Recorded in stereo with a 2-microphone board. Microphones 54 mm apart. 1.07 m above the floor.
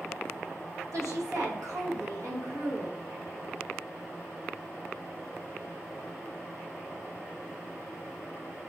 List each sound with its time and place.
0.9 s a woman speaking: 80° right, 1.0 m